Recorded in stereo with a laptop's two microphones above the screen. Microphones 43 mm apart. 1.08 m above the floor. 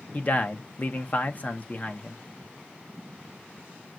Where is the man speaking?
35° left (ahead or behind), 0.8 m.